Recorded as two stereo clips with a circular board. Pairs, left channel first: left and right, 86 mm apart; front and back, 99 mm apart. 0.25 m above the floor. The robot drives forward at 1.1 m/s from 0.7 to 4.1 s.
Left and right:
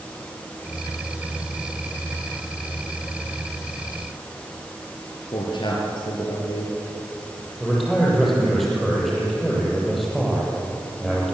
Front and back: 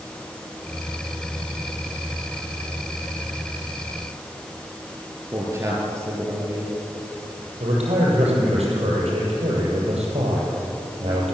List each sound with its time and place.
5.3 s a man speaking: 115° left, 4.5 m
7.6 s a man speaking: straight behind, 7.5 m